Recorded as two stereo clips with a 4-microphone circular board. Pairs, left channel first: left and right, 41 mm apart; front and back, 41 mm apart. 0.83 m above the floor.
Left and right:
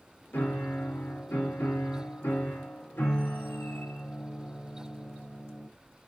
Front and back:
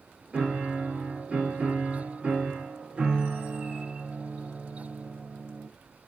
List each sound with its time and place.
0.3 s a piano: 120° left, 1.0 m